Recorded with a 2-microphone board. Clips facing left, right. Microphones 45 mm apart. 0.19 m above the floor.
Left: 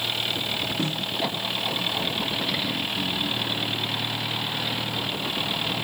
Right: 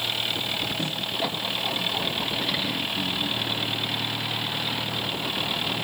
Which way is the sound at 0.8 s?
35° left (ahead or behind).